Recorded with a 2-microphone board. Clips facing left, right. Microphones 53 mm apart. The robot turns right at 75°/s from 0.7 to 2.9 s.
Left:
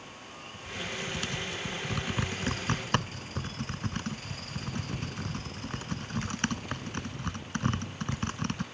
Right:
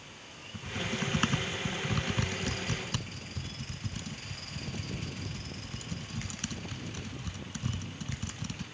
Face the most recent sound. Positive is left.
turn(degrees=50)  # may be behind; listen again after turning